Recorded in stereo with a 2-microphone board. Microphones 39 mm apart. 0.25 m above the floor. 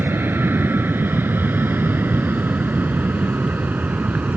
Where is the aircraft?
65° right (ahead or behind); by 4.4 s 45° right (ahead or behind).